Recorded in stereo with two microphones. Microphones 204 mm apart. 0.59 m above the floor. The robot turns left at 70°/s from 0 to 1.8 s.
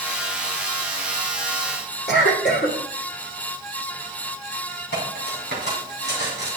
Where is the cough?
55° left (ahead or behind), 2 m.